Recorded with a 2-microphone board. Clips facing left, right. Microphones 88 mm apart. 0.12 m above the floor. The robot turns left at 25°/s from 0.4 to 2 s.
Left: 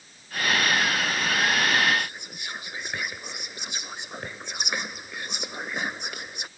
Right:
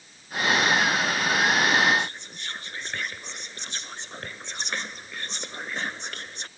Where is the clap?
No clap in this recording.